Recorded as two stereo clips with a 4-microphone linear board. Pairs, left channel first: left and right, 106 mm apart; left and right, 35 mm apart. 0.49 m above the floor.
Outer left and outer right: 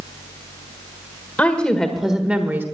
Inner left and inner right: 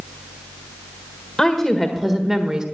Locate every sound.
1.4 s a woman speaking: 15° left (ahead or behind), 1.6 m; by 2.6 s 20° right (ahead or behind), 1.4 m